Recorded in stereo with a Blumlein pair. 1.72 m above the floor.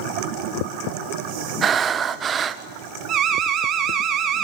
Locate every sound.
1.6 s breathing: 20° right, 1.0 m
3.1 s an alarm: 30° right, 1.9 m